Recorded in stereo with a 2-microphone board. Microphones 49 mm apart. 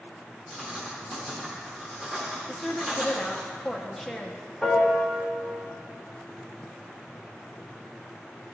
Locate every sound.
0.5 s writing: 15° right (ahead or behind), 1.0 m
2.5 s a woman speaking: centre (ahead or behind), 0.6 m
4.6 s a piano: 5° right (ahead or behind), 1.2 m